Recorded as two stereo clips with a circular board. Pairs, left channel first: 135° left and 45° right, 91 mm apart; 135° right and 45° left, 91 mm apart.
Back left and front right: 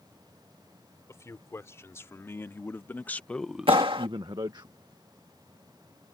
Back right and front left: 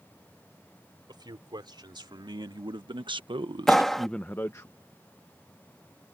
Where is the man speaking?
80° left; by 4.7 s 80° right.